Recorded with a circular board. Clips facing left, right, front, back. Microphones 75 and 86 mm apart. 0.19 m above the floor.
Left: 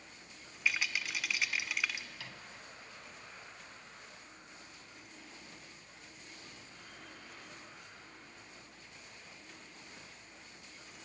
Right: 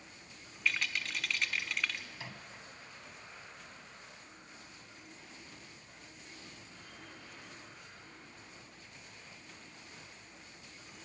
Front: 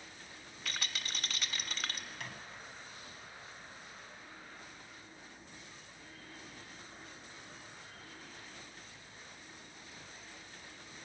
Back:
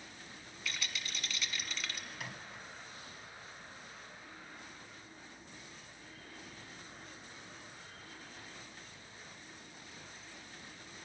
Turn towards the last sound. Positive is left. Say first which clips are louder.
# right 2 dB, even
turn(degrees=-100)